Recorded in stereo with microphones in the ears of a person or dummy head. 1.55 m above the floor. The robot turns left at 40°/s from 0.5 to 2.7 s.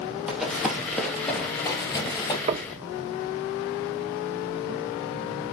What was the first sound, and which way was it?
Running footsteps, 10° right (ahead or behind).